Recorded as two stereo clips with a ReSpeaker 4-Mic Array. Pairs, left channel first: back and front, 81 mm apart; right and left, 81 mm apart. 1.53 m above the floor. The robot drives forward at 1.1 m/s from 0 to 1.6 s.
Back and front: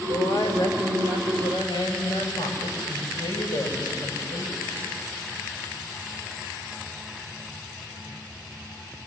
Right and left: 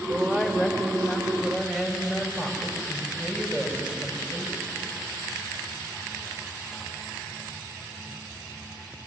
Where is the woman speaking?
160° left, 4.5 m; by 4.6 s 165° left, 6.5 m.